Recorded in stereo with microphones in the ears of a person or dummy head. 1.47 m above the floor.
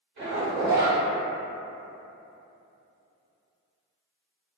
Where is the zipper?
40° right (ahead or behind), 1.3 m.